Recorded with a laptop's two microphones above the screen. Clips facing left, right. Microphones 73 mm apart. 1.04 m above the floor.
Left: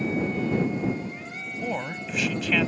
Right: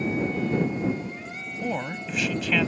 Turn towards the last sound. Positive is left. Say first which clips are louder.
# right 1 dB
turn(degrees=0)  # may be behind; listen again after turning